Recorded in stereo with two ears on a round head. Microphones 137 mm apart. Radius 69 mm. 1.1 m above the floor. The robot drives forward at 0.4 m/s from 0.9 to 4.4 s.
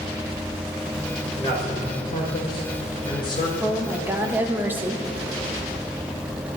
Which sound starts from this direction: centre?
A woman speaking, at 3.6 s.